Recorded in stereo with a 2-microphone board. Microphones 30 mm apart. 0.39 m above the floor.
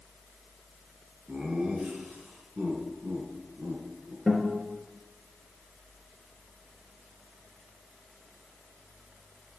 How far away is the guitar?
About 3.5 m.